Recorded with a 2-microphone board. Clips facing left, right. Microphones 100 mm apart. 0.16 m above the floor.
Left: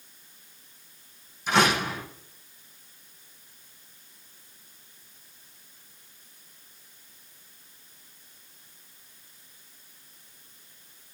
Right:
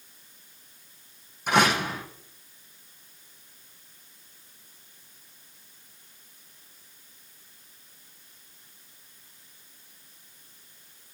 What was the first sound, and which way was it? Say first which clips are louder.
A door slam: even; 55° right (ahead or behind).